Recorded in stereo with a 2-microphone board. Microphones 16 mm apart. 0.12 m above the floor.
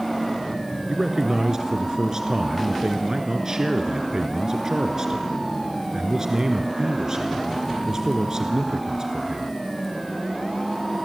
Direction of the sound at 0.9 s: 40° right (ahead or behind).